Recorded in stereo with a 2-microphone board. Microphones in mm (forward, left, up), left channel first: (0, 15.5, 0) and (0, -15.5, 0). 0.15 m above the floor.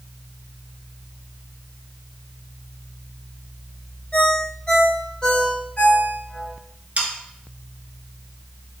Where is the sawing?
45° right (ahead or behind), 0.7 m.